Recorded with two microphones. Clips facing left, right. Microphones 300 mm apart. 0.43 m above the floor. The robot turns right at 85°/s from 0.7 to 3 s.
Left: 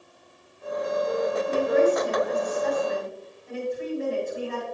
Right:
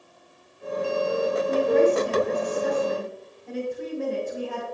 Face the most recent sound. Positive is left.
turn(degrees=-95)